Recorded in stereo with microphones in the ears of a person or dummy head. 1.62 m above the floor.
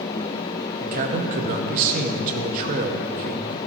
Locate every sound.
0.8 s a man speaking: 45° right (ahead or behind), 0.9 m